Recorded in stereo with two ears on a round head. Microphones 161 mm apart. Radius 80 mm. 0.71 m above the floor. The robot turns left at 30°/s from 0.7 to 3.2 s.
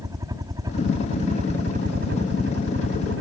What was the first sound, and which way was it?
A helicopter, 20° right.